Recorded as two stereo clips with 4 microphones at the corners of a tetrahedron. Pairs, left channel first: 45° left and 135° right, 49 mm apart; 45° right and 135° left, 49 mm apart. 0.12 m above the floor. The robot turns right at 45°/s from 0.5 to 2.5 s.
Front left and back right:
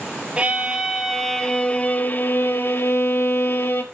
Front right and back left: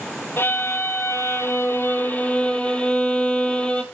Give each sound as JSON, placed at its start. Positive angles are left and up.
{"t": 0.4, "sound": "a violin", "azimuth_deg": -70, "distance_m": 1.3}